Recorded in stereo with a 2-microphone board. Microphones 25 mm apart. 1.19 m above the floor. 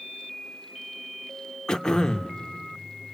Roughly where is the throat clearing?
Left.